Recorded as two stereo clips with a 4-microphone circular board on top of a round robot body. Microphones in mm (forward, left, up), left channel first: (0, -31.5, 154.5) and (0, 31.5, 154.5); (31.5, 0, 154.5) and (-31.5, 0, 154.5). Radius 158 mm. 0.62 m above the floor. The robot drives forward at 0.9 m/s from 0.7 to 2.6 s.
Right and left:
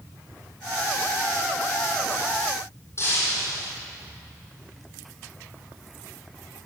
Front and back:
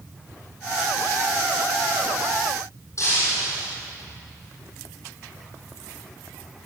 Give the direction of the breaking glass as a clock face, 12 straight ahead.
1 o'clock.